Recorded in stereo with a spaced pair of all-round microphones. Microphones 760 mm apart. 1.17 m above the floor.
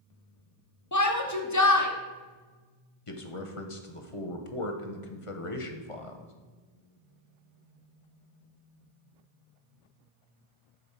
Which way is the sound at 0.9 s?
25° left (ahead or behind).